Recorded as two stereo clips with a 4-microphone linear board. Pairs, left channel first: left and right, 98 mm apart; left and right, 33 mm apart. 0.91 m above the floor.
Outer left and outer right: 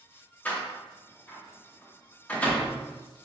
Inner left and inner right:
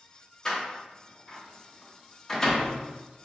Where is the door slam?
15° left (ahead or behind), 0.9 m.